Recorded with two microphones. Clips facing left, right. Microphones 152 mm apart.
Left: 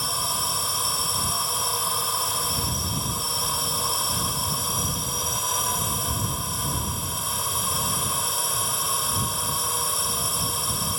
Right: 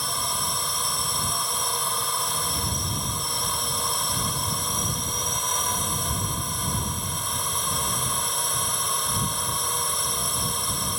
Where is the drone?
5° left (ahead or behind).